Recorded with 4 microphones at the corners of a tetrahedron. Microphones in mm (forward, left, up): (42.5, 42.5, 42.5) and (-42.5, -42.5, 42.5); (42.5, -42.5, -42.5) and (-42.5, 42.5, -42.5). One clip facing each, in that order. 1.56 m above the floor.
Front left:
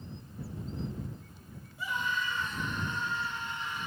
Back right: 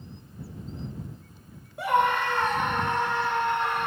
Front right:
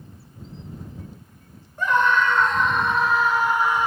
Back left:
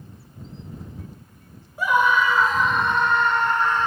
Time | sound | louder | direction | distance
1.8 | a scream | back right 12 dB, back left 1 dB | 145° right | ?